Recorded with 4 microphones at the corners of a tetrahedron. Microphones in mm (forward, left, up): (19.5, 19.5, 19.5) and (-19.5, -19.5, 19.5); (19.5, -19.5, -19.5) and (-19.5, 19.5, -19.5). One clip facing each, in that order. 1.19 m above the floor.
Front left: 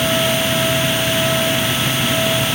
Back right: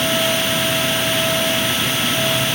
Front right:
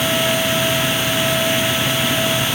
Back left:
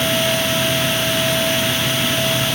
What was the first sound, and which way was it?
Only background noise.